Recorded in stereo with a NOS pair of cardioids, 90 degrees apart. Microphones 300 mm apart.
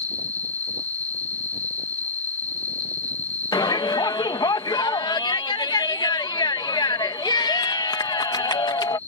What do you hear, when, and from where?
0.0 s an insect: 20° left
3.5 s a shout: 15° left